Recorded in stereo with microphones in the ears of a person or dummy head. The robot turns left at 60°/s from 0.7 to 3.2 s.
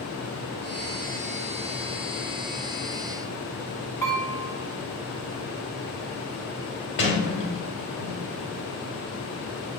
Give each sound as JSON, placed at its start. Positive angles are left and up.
{"t": 4.0, "sound": "dishes clattering", "side_deg": 15, "distance_m": 2.5}
{"t": 7.0, "sound": "a sliding door", "side_deg": 55, "distance_m": 3.0}